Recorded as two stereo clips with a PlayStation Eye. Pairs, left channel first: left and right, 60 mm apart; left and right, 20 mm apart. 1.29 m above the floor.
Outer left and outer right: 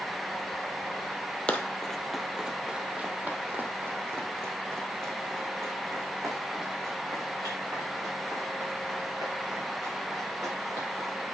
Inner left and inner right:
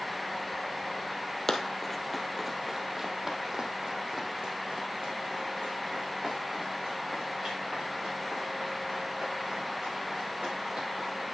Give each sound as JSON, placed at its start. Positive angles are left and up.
{"t": 1.5, "sound": "running footsteps", "side_deg": 20, "distance_m": 1.3}